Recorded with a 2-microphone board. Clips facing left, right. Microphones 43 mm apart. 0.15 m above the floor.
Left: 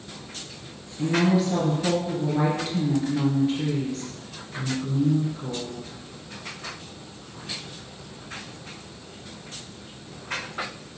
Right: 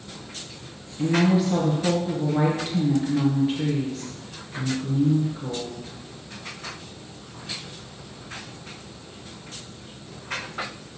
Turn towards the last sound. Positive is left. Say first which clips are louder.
# right 1 dB
turn(degrees=-5)  # may be behind; listen again after turning